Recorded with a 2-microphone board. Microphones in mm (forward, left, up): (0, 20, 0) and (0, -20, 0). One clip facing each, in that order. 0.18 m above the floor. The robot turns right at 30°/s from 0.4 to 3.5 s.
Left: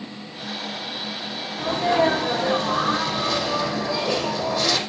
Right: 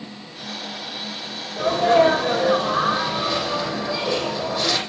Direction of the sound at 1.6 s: 70° right.